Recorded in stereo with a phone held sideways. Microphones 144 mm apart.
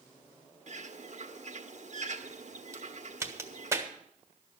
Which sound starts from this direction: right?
A bird, at 0.7 s.